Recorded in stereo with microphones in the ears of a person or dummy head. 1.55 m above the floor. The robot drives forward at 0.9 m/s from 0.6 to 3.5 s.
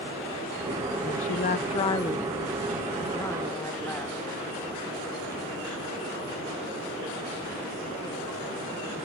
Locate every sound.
1.1 s a woman speaking: 35° left (ahead or behind); by 4.2 s 10° left (ahead or behind)